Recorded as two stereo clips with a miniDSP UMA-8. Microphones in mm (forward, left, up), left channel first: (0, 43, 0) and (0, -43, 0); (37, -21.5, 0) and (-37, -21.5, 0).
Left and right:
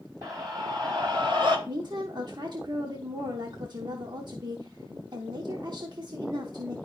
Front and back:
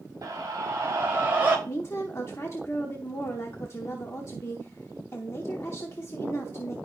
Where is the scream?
135° right, 4.5 m; by 1.6 s 110° right, 3 m.